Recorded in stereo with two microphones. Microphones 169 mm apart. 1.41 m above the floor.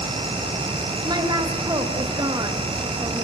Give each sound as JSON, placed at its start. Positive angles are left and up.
{"t": 1.1, "sound": "a woman speaking", "side_deg": -25, "distance_m": 2.5}